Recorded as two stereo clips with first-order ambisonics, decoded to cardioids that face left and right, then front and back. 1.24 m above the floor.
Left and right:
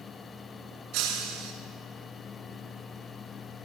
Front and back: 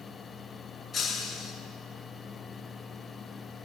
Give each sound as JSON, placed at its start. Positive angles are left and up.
{"t": 0.9, "sound": "breaking glass", "azimuth_deg": -75, "distance_m": 5.5}